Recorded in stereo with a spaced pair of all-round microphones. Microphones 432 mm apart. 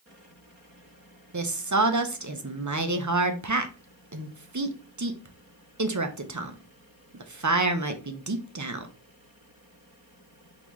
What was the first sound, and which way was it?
A woman speaking, 40° right (ahead or behind).